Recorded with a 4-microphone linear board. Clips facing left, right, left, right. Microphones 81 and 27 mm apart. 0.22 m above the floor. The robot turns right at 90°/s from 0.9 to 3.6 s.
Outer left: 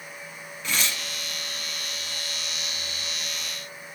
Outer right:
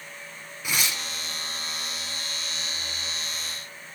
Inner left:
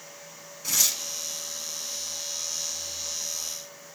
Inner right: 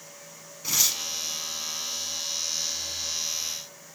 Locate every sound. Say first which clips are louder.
0.6 s tearing paper: even, inner right 1 dB; 15° right (ahead or behind), 1.2 m; by 1.0 s 20° right (ahead or behind), 1.2 m